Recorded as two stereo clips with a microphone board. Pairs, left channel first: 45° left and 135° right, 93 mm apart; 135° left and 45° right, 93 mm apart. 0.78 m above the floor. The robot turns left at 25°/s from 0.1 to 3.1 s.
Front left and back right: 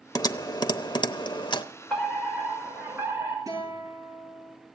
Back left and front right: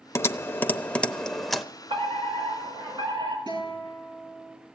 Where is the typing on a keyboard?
80° left, 0.7 m; by 1.6 s 45° left, 0.7 m.